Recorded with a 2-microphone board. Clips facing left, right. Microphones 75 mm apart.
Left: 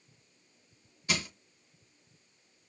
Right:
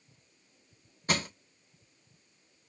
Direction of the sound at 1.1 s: 45° right (ahead or behind).